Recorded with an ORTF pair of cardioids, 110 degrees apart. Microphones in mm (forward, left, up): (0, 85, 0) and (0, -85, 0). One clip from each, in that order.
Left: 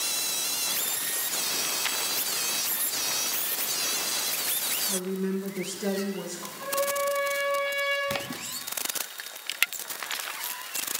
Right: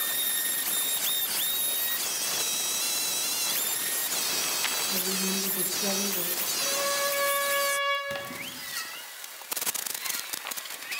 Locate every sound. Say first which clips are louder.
4.8 s a woman speaking: right 1 dB; 40° left, 1.5 m; by 6.5 s 15° right, 2 m
6.6 s a trumpet: left 1 dB; 55° right, 7.5 m
8.1 s a splash: left 2 dB; 35° left, 0.9 m